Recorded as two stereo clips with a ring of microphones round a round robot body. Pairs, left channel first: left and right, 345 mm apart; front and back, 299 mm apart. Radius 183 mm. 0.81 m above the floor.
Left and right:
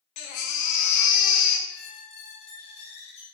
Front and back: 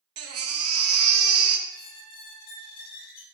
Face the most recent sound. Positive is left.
turn(degrees=15)